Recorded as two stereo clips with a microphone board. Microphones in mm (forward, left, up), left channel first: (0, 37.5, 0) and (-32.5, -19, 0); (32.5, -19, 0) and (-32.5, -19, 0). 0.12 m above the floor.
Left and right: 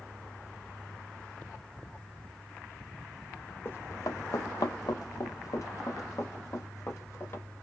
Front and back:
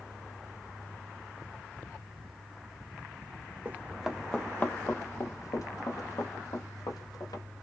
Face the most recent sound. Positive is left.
turn(degrees=10)